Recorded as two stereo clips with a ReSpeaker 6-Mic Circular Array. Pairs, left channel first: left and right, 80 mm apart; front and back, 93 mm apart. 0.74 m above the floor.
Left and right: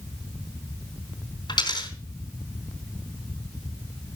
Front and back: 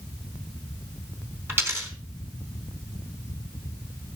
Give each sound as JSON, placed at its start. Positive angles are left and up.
{"t": 1.5, "sound": "a dropped coin", "azimuth_deg": 115, "distance_m": 4.0}